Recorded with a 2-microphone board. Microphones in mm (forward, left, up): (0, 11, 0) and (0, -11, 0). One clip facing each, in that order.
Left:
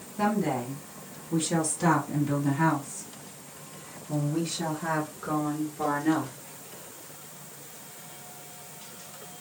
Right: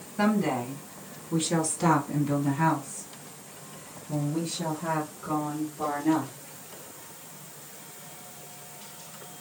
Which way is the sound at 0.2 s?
40° right (ahead or behind).